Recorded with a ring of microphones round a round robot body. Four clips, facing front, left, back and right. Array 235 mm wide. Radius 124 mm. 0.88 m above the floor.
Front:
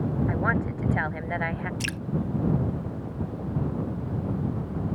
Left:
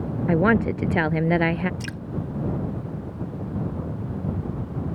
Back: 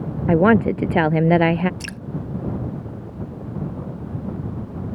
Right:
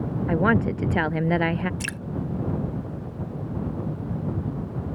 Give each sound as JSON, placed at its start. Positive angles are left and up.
{"t": 0.3, "sound": "a woman speaking", "azimuth_deg": 170}
{"t": 1.8, "sound": "dripping", "azimuth_deg": -70}